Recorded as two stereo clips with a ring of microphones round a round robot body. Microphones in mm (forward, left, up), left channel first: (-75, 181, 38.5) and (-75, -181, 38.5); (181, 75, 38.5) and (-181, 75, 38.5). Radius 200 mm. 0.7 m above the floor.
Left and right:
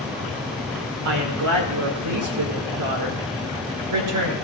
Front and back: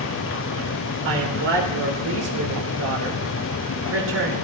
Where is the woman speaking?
125° right, 3 m.